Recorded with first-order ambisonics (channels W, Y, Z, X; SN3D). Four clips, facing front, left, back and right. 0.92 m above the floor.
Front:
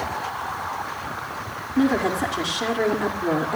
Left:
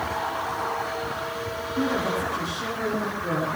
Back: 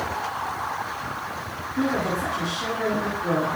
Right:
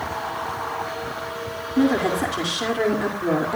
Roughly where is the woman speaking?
Ahead right.